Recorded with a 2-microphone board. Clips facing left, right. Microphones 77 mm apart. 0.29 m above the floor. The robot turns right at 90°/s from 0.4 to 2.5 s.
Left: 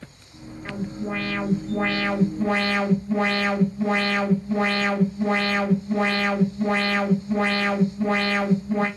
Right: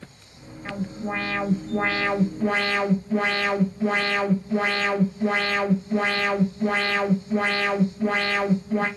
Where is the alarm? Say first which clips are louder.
Even; 10° left (ahead or behind), 1.9 m; by 8.9 s 15° right (ahead or behind), 1.9 m.